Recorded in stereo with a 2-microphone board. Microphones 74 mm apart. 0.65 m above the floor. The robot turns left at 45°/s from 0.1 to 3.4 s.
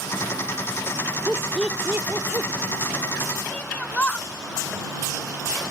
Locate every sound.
1.3 s laughter: 5° left (ahead or behind); by 2.5 s 45° right (ahead or behind)
3.5 s a shout: 20° left (ahead or behind)